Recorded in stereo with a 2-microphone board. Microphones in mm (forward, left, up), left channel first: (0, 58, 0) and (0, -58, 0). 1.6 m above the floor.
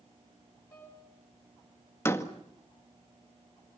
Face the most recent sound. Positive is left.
turn(degrees=20)  # may be behind; listen again after turning